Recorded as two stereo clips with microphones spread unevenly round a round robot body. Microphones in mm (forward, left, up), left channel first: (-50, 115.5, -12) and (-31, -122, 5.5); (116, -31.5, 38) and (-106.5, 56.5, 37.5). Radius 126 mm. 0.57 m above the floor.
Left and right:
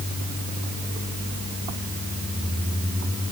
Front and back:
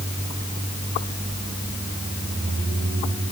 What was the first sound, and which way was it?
Only background noise.